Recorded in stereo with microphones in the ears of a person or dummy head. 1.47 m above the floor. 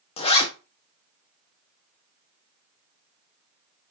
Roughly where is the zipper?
Left.